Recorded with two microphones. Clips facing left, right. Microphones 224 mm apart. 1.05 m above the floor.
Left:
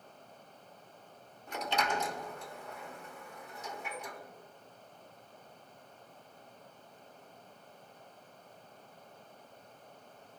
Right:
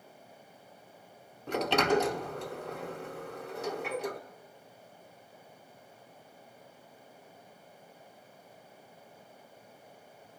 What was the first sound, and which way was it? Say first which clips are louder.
A sliding door: right 8 dB; 70° right (ahead or behind).